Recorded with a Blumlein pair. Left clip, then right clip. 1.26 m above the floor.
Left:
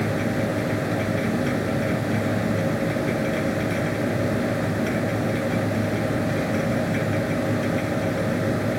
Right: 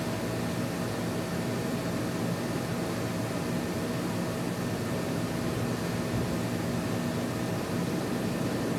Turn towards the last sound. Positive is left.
turn(degrees=50)